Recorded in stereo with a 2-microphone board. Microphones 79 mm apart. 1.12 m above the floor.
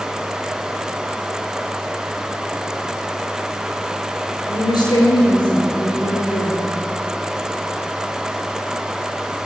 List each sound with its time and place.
4.5 s a woman speaking: 80° left, 4 m